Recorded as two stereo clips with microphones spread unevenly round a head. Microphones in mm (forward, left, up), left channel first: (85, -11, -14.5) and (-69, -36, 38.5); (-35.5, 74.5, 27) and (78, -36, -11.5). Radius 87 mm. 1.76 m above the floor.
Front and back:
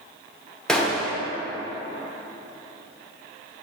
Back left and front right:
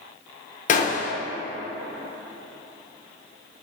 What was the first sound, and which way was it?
A gunshot, 100° left.